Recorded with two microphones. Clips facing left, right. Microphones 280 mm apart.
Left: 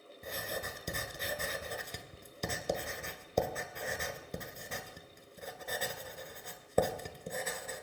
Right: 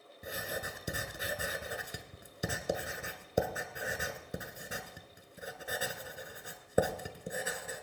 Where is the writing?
10° right (ahead or behind), 1.1 m.